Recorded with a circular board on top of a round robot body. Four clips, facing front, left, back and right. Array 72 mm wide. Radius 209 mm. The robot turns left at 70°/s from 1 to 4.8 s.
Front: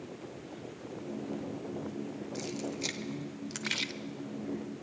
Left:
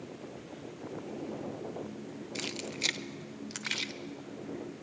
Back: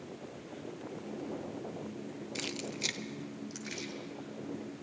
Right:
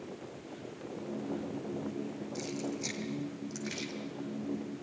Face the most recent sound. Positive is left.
turn(degrees=-35)